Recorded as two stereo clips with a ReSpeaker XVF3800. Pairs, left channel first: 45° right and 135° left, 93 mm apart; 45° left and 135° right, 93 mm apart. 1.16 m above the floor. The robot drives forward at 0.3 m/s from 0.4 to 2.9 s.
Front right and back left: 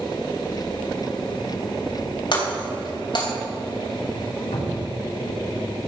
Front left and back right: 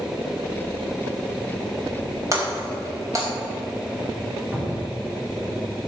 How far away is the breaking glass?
About 3.5 m.